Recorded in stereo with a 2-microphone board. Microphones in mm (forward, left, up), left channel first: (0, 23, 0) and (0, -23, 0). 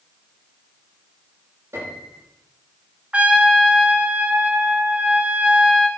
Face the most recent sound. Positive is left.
turn(degrees=-25)  # may be behind; listen again after turning